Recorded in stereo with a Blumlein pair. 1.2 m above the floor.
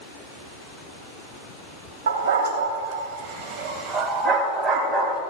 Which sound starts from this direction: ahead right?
A dog barking, at 2.1 s.